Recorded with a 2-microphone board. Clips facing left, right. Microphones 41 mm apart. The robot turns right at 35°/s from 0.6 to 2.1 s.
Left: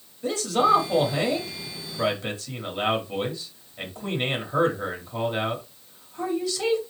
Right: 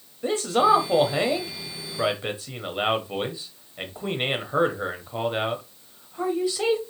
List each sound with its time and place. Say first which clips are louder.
0.2 s a man speaking: right 1 dB; 25° right (ahead or behind), 0.9 m; by 6.8 s 20° right (ahead or behind), 0.9 m